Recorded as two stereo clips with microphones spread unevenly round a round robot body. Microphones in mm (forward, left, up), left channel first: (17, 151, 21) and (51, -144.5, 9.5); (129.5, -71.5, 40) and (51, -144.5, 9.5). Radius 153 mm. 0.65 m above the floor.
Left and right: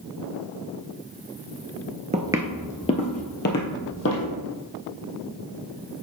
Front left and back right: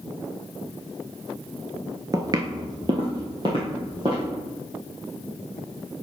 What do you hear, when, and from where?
2.1 s footsteps: 100° right, 0.6 m; by 4.3 s 145° left, 1.6 m